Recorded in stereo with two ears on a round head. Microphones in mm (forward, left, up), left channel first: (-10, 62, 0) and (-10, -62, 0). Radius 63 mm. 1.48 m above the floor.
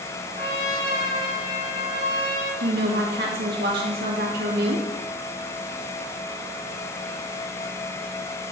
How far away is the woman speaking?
About 1.9 m.